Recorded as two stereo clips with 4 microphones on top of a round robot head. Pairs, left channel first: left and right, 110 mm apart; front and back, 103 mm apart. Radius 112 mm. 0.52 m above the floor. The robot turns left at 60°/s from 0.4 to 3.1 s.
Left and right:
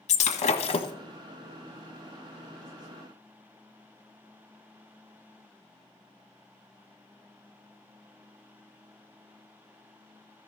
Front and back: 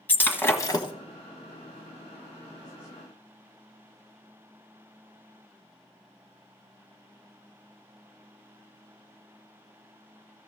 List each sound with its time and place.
0.1 s breaking glass: 75° left, 1.5 m; by 0.9 s 40° left, 1.5 m